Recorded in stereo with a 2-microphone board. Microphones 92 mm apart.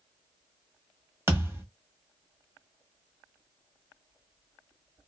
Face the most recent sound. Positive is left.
turn(degrees=-25)  # may be behind; listen again after turning